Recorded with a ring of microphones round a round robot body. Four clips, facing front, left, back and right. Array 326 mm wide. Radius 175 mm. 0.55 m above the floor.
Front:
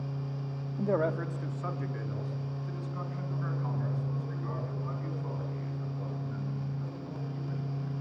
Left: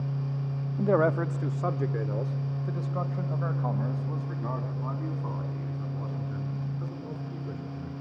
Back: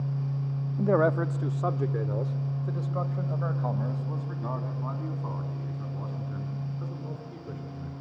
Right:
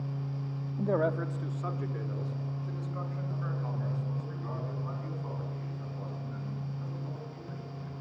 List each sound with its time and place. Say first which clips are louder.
0.8 s a man speaking: left 5 dB, back 5 dB; 130° left, 0.8 m; by 7.9 s 145° left, 7.5 m